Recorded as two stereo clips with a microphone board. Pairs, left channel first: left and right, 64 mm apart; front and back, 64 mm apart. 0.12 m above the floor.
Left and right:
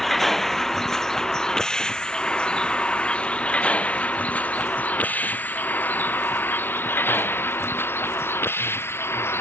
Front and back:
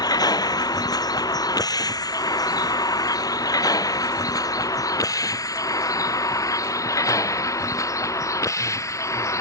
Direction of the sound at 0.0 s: 5° left.